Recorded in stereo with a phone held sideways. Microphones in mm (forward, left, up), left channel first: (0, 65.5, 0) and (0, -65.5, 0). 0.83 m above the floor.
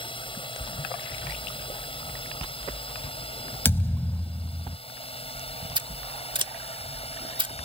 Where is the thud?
20° left (ahead or behind).